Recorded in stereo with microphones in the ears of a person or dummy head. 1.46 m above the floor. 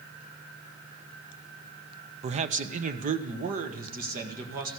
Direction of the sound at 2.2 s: 35° right (ahead or behind).